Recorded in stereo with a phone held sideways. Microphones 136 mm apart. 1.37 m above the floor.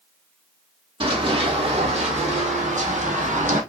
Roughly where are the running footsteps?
Right.